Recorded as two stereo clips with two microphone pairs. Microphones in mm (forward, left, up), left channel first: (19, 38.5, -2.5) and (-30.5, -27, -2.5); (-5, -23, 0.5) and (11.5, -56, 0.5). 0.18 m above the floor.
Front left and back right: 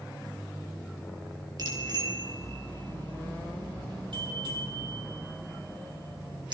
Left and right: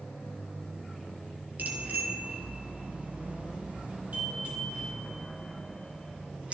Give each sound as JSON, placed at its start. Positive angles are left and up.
{"t": 1.6, "sound": "a bicycle bell", "azimuth_deg": -95, "distance_m": 2.5}